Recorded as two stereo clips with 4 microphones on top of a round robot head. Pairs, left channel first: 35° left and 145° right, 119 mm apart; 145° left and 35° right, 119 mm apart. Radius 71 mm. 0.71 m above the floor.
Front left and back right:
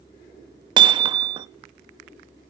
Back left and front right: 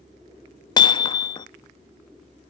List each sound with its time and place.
0.8 s hammering: straight behind, 0.6 m